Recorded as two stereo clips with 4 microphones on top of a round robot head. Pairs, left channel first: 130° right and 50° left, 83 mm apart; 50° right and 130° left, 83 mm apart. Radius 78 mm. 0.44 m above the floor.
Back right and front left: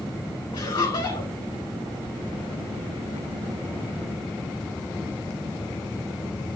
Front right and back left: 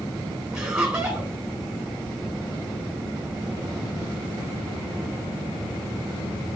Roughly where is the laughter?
Behind right.